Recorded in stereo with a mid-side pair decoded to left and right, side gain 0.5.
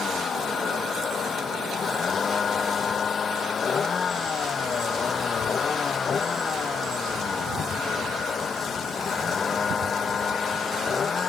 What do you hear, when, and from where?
0.0 s a vehicle: 45° left; by 11.3 s 40° left